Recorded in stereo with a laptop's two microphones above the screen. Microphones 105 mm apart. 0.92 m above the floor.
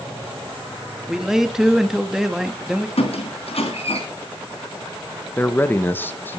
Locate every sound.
1.1 s a man speaking: 5° right (ahead or behind), 1.4 m
3.0 s a squeak: 75° left (ahead or behind), 3 m
5.4 s a man speaking: 20° left (ahead or behind), 0.8 m